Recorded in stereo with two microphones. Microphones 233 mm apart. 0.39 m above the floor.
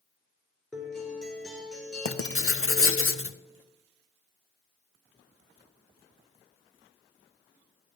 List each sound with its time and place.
0.7 s a guitar: centre (ahead or behind), 2.5 m
2.0 s writing: 65° left (ahead or behind), 0.6 m